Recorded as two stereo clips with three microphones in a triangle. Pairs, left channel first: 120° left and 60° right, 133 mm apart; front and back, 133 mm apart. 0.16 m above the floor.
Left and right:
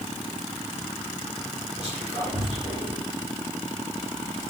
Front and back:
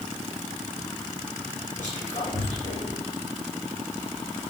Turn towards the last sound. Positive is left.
turn(degrees=-20)